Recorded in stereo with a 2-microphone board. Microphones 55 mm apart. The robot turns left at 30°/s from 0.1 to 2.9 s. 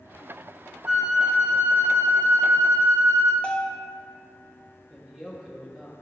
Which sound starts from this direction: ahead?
A flute, at 0.9 s.